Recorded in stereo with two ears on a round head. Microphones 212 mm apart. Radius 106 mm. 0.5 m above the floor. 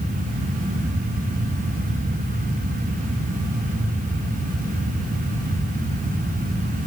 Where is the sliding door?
No sliding door in this recording.